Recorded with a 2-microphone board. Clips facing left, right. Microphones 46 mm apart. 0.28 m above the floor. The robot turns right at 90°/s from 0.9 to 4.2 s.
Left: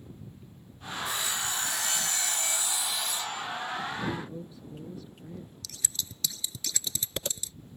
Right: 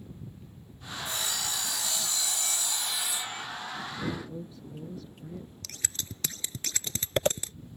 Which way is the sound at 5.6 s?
45° right (ahead or behind).